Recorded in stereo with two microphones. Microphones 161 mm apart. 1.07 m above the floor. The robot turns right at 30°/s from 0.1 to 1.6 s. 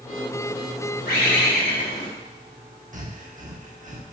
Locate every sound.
1.1 s a bird: 75° left (ahead or behind), 2.5 m
2.9 s breathing: 50° right (ahead or behind), 1.0 m